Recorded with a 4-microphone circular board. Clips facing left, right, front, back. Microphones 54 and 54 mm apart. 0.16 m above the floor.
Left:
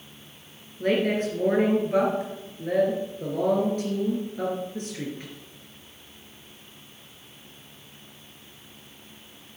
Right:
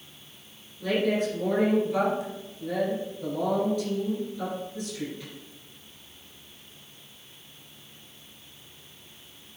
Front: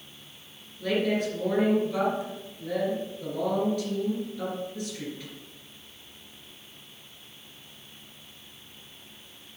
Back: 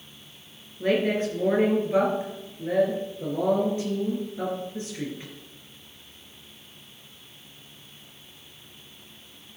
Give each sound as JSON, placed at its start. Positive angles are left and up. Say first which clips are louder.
{"t": 0.8, "sound": "a woman speaking", "louder": "left 2 dB, back 3 dB", "azimuth_deg": 130, "distance_m": 3.0}